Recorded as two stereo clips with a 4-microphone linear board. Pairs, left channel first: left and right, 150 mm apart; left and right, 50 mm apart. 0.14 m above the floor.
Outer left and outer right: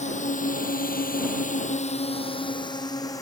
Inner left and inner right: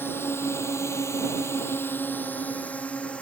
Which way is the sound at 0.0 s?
50° left (ahead or behind).